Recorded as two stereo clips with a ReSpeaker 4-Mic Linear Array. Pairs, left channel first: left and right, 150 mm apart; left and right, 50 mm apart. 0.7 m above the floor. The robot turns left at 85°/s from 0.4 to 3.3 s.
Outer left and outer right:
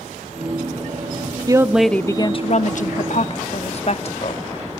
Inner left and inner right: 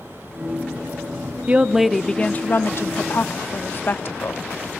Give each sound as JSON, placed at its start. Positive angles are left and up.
{"t": 1.5, "sound": "a woman speaking", "azimuth_deg": -150, "distance_m": 0.8}